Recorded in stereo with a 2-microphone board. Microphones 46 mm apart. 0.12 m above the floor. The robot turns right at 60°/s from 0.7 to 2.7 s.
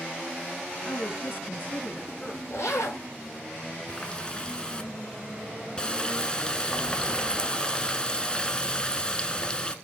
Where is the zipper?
60° left (ahead or behind), 4.5 m; by 3.0 s 70° left (ahead or behind), 4.5 m.